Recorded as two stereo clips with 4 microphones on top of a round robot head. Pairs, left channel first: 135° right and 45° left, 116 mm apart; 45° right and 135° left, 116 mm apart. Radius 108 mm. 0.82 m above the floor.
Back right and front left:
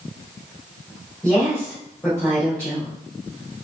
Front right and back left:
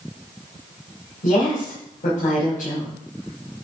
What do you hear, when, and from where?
1.2 s a woman speaking: 55° right, 5 m